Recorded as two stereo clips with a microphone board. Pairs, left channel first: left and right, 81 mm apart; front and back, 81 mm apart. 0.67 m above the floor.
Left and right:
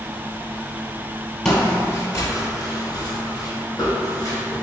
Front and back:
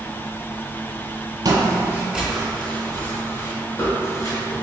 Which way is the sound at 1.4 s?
170° left.